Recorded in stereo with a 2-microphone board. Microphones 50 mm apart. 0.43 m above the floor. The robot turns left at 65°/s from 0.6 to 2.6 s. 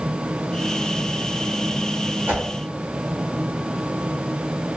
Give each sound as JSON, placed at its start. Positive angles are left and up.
{"t": 2.3, "sound": "a whoosh", "side_deg": -40, "distance_m": 0.9}